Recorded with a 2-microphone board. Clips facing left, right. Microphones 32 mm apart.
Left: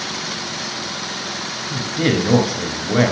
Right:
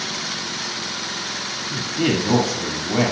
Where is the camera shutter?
No camera shutter in this recording.